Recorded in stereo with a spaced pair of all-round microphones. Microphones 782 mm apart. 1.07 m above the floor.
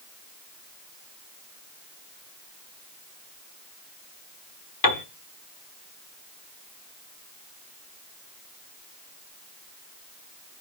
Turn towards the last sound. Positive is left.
turn(degrees=30)  # may be behind; listen again after turning